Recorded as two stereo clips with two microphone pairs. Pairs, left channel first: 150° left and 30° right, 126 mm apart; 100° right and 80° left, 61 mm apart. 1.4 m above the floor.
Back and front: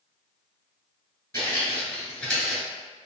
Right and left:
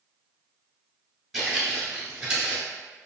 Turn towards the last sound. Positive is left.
turn(degrees=50)